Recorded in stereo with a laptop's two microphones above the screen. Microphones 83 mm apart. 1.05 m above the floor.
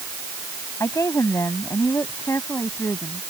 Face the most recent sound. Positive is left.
turn(degrees=35)  # may be behind; listen again after turning